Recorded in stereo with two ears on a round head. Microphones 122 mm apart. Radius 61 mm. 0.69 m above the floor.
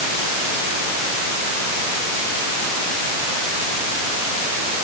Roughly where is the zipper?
No zipper in this recording.